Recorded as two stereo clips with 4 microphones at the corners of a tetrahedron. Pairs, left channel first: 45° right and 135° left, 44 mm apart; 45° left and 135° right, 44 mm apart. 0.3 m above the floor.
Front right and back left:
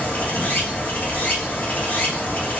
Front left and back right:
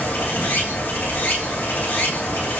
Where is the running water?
5° left, 2.5 m.